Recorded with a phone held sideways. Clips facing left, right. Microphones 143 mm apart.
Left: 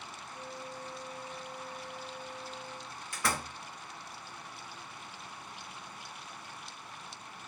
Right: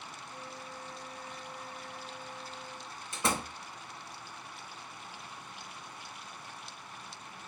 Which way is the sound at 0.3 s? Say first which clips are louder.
Left 3 dB; 60° right (ahead or behind).